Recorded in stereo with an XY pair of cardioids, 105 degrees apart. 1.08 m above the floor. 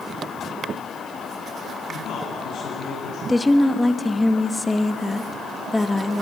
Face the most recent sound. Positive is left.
turn(degrees=10)